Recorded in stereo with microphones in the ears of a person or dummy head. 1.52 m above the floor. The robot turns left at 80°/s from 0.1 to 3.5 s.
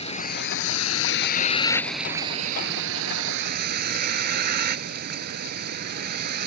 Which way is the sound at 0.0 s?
150° left.